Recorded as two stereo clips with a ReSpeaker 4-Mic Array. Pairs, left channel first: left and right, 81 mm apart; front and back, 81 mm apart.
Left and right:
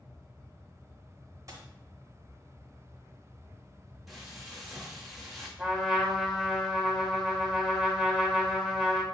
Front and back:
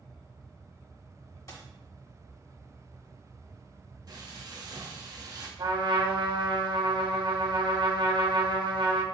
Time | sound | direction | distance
1.5 | a dropped coin | 45° right | 0.8 m
4.1 | frying | straight behind | 0.8 m
5.6 | a trumpet | straight behind | 0.8 m